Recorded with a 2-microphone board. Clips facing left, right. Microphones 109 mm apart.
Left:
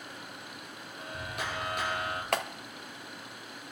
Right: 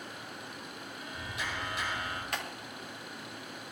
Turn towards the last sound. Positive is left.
turn(degrees=75)  # may be behind; listen again after turning